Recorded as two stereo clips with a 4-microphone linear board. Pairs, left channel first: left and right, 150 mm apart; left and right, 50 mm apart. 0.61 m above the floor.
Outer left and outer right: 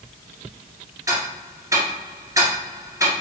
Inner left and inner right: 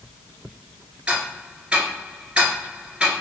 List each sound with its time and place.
1.1 s ticking: 20° right (ahead or behind), 1.4 m